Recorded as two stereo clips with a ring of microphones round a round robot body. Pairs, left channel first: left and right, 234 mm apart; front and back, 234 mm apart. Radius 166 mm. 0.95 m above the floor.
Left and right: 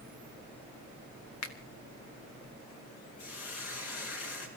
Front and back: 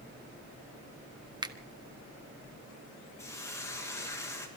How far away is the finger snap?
About 1.5 m.